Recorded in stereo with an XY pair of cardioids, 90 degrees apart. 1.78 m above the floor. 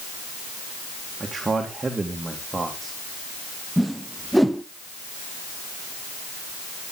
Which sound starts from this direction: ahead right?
A man speaking, at 1.2 s.